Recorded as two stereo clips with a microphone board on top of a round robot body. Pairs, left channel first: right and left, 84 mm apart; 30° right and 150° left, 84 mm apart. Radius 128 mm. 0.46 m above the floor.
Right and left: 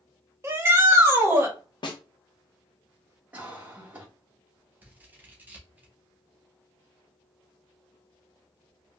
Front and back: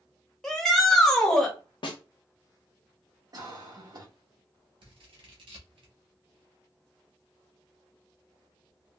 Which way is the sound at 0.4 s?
50° left.